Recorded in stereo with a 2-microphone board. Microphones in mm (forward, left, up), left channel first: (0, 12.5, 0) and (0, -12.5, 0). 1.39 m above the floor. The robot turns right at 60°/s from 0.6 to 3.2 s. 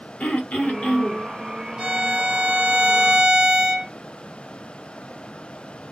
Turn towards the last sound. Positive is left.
turn(degrees=-60)